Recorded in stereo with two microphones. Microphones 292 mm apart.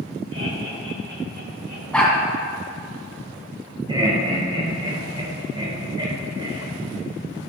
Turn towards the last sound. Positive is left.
turn(degrees=-15)  # may be behind; listen again after turning